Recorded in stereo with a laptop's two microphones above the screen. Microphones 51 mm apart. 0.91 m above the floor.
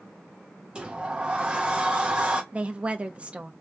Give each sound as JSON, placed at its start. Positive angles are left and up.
{"t": 0.8, "sound": "a sliding door", "side_deg": -20, "distance_m": 0.9}
{"t": 2.5, "sound": "a woman speaking", "side_deg": -25, "distance_m": 0.9}